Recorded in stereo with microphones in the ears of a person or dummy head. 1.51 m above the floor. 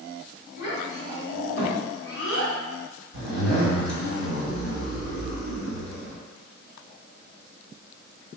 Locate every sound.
0.6 s a child speaking: 70° left (ahead or behind), 1.7 m
3.1 s a zipper: 70° left (ahead or behind), 1.9 m